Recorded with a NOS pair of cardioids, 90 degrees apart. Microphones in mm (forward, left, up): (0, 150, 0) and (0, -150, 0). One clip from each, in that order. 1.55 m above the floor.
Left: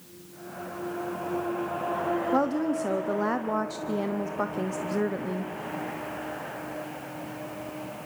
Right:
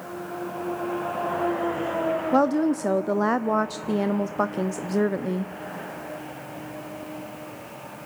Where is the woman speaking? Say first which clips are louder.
Right 7 dB; 20° right, 0.6 m.